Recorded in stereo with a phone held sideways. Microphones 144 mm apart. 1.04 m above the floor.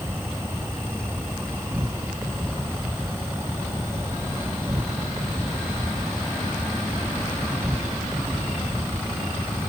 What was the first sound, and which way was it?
An insect, 15° right (ahead or behind).